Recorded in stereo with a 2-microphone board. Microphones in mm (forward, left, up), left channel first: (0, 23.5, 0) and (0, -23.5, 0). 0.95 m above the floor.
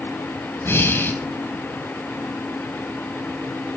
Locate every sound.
0.6 s breathing: 55° left (ahead or behind), 4.5 m